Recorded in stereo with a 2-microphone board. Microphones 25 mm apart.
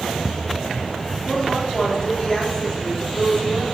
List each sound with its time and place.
1.3 s a woman speaking: 30° left (ahead or behind), 4 m